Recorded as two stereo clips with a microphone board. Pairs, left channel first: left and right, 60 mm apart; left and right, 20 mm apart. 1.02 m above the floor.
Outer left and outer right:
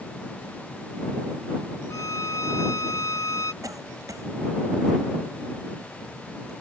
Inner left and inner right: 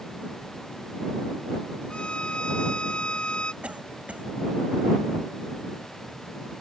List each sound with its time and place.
1.9 s a violin: 65° left (ahead or behind)
3.6 s a cough: 90° right